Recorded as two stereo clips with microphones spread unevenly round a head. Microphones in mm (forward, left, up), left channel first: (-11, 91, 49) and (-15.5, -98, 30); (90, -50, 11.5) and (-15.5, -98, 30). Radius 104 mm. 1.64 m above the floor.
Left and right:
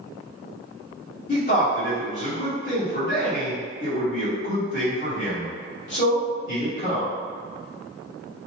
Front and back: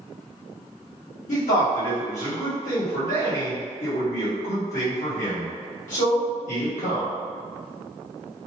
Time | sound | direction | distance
1.3 | a man speaking | 40° left | 1.6 m